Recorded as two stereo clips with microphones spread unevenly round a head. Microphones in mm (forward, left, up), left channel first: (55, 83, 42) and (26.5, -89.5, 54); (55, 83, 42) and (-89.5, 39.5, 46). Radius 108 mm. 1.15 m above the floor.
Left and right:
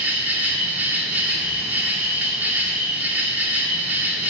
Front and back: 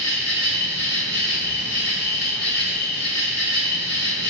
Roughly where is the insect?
Ahead.